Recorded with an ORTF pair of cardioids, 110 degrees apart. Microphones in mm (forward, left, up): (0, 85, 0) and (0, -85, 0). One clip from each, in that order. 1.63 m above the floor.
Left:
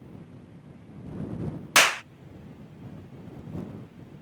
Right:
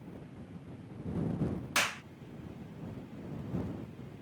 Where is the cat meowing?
No cat meowing in this recording.